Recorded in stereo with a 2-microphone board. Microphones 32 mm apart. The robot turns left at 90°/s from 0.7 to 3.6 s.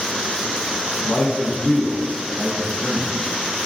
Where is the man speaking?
70° left, 1.9 m; by 3.1 s 115° right, 1.9 m.